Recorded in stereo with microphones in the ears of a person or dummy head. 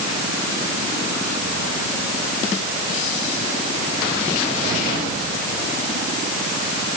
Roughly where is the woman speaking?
No woman speaking in this recording.